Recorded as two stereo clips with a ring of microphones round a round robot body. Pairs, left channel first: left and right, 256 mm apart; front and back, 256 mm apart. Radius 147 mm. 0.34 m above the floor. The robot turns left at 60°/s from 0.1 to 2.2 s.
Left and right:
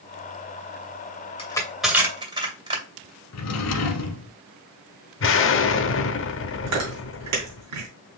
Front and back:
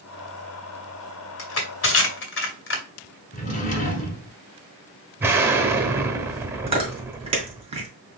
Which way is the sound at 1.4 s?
25° left.